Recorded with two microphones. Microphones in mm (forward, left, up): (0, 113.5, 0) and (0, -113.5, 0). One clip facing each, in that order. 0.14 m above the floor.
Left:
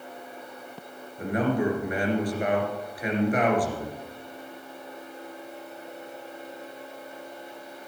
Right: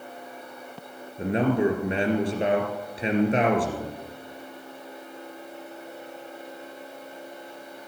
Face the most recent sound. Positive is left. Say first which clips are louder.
# right 3 dB
turn(degrees=-25)  # may be behind; listen again after turning